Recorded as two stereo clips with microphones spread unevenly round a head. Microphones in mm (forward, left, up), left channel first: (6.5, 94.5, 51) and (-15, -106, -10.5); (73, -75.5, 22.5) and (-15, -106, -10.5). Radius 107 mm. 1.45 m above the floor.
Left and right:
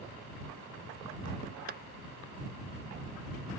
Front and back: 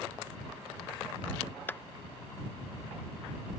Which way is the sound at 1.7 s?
40° right.